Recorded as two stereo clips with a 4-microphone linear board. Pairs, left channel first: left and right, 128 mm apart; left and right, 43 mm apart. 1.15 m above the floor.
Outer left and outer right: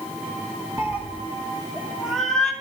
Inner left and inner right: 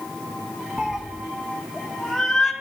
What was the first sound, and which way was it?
A cat meowing, 20° right (ahead or behind).